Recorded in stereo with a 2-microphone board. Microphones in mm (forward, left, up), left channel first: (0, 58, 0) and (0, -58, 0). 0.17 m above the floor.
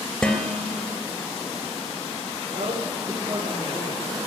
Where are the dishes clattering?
5° left (ahead or behind), 2.5 m.